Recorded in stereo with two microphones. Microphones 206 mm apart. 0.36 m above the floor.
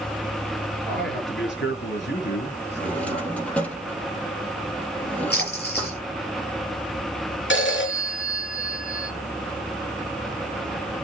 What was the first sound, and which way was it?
A man speaking, 65° left (ahead or behind).